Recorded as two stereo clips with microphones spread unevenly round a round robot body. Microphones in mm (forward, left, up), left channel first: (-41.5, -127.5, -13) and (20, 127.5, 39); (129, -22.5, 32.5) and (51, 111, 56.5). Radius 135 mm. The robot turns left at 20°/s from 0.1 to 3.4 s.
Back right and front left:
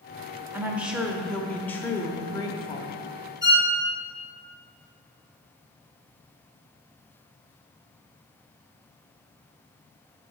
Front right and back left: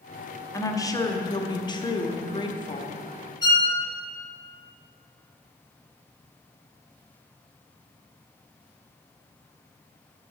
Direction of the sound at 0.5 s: 15° right.